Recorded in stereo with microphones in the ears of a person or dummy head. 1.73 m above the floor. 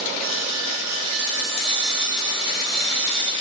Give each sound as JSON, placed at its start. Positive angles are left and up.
{"t": 0.2, "sound": "sawing", "side_deg": -75, "distance_m": 6.0}